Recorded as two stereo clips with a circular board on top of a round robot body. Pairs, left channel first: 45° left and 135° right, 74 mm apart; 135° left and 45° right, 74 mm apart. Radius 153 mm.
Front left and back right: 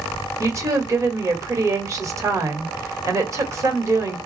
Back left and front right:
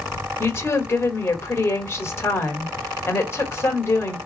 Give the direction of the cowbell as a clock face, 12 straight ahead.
I don't hear a cowbell.